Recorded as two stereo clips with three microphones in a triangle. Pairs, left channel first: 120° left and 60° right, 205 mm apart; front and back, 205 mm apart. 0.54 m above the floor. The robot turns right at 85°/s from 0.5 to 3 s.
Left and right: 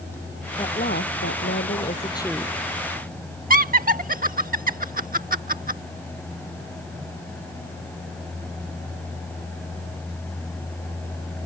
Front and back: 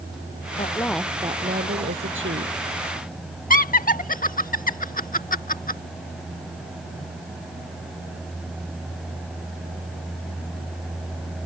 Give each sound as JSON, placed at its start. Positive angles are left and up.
{"t": 0.6, "sound": "a woman speaking", "azimuth_deg": 55}
{"t": 3.5, "sound": "laughter", "azimuth_deg": -30}